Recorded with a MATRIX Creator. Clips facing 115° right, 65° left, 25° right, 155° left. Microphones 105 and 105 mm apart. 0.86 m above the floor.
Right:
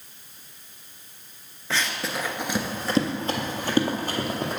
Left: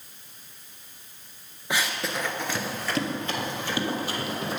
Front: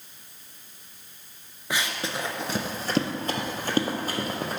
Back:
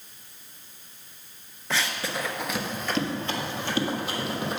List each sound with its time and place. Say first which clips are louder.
1.7 s running footsteps: even, even; 20° left, 0.8 m; by 4.6 s 70° right, 2 m